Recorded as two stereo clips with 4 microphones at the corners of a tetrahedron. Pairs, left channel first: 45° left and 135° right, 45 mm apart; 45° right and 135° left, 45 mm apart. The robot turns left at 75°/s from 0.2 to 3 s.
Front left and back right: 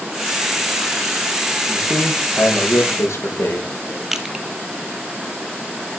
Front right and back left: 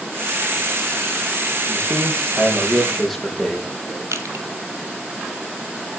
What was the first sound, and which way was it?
A man speaking, 140° left.